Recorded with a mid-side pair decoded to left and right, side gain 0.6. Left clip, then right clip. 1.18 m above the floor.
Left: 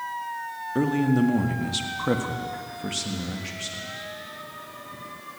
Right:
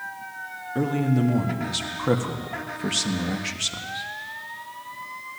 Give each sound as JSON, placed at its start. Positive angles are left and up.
{"t": 0.8, "sound": "a man speaking", "azimuth_deg": 20, "distance_m": 2.0}